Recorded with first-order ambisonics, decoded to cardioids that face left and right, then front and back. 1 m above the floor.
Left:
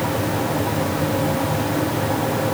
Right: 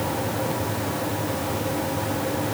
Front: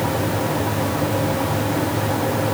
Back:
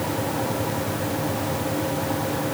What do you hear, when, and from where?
Only background noise.